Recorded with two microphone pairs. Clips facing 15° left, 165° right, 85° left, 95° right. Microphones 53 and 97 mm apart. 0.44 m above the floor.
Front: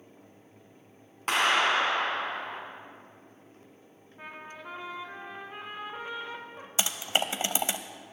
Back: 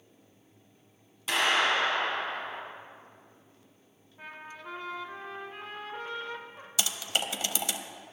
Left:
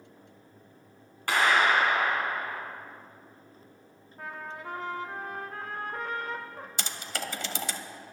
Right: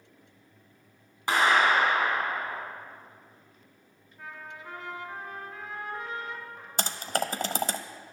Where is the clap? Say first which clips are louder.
Front 1 dB, right 1 dB; 25° right, 3.5 m.